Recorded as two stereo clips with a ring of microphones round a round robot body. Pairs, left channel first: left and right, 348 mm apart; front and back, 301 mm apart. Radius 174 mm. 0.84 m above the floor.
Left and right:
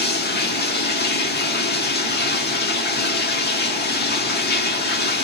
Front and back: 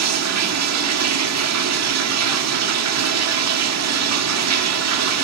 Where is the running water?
150° left, 1.6 m.